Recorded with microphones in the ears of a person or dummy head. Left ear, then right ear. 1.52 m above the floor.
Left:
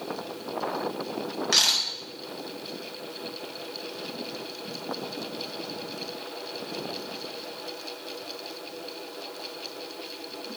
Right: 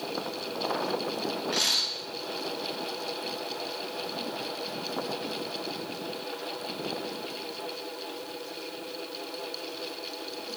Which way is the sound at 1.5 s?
55° left (ahead or behind).